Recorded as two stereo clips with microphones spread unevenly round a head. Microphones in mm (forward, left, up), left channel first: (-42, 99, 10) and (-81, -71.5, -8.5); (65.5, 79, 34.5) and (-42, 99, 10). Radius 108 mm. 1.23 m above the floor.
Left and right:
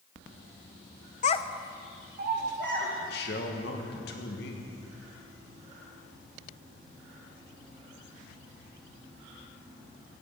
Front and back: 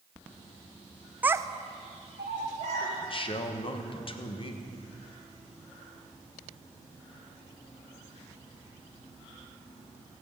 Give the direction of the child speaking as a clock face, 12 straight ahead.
9 o'clock.